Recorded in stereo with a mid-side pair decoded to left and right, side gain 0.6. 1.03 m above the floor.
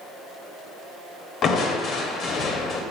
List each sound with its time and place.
1.4 s crushing: 50° left, 0.9 m